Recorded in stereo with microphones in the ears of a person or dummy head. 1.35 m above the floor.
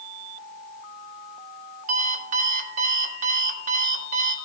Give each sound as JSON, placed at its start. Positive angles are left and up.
{"t": 1.9, "sound": "an alarm clock", "side_deg": -50, "distance_m": 1.6}